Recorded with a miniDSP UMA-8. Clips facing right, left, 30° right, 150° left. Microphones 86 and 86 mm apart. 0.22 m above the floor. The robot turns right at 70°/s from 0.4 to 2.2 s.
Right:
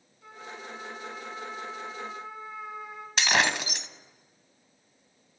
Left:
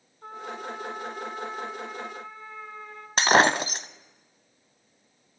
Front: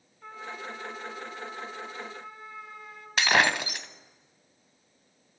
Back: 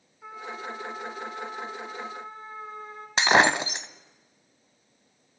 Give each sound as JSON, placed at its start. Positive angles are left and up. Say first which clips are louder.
{"t": 0.2, "sound": "a trumpet", "louder": "left 7 dB, back 2 dB", "azimuth_deg": 75, "distance_m": 2.5}
{"t": 3.2, "sound": "breaking glass", "louder": "left 6 dB, back 4 dB", "azimuth_deg": 100, "distance_m": 0.6}